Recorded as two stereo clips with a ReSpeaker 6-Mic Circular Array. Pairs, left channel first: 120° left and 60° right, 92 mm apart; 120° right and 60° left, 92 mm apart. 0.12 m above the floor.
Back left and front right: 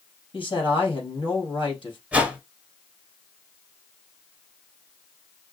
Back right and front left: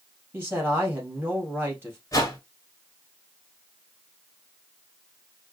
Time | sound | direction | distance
0.3 | a man speaking | 125° left | 2.5 m
2.1 | a whoosh | 125° right | 1.5 m